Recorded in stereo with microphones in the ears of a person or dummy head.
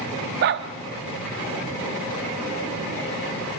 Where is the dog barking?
45° right (ahead or behind), 1.0 m.